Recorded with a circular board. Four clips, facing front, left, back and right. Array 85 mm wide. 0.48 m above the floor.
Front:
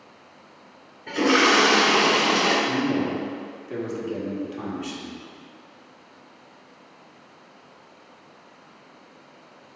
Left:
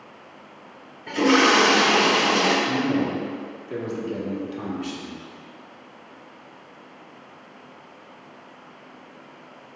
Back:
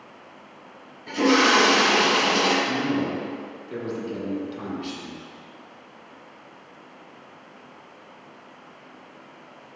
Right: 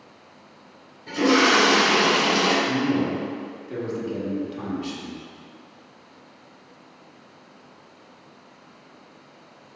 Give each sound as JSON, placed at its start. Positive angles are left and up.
{"t": 1.1, "sound": "a toilet flushing", "azimuth_deg": 55, "distance_m": 1.4}
{"t": 2.6, "sound": "a man speaking", "azimuth_deg": 20, "distance_m": 1.0}